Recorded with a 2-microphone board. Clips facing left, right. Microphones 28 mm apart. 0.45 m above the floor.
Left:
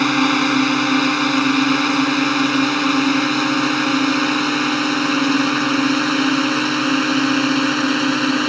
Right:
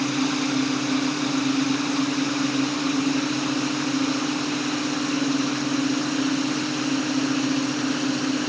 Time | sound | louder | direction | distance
0.0 | a drone | left 8 dB | 75° left (ahead or behind) | ?